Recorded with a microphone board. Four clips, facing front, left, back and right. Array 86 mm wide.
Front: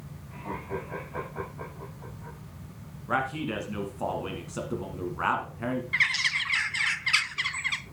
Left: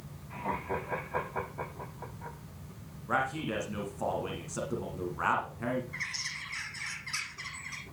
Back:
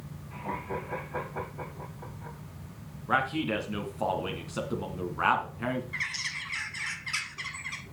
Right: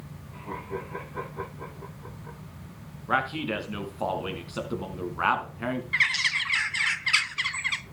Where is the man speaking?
105° right, 1.6 m.